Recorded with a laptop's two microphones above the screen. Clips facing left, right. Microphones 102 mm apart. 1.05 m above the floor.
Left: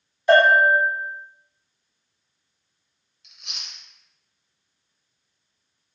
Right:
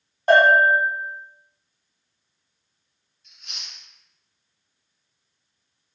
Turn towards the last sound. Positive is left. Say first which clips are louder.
# left 1 dB
turn(degrees=75)  # may be behind; listen again after turning